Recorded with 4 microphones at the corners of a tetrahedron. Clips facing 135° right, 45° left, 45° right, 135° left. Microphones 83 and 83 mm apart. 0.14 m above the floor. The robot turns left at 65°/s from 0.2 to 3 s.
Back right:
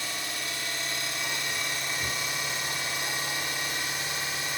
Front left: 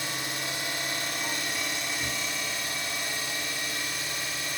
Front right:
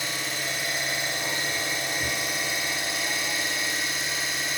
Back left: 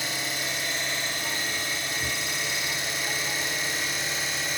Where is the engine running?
45° left, 1.1 m; by 4.6 s 135° right, 1.1 m.